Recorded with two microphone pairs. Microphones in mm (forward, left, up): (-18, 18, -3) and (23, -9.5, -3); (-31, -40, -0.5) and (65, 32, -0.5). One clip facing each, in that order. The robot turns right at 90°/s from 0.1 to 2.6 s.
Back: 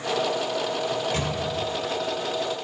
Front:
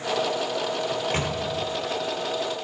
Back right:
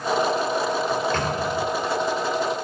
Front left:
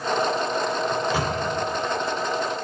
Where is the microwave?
60° right, 1.2 m; by 1.4 s 15° right, 1.2 m.